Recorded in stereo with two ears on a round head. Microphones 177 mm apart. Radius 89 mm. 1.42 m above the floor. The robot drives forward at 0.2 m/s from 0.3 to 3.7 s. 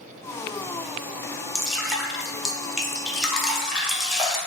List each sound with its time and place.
1.6 s dripping: centre (ahead or behind), 0.5 m